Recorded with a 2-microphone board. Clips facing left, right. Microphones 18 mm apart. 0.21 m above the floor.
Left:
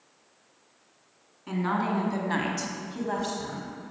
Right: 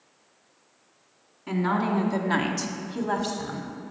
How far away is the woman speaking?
About 1.8 m.